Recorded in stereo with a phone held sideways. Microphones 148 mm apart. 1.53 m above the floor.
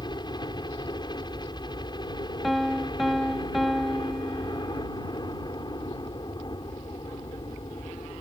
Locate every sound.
0.0 s a helicopter: 30° left (ahead or behind)
2.4 s a piano: centre (ahead or behind)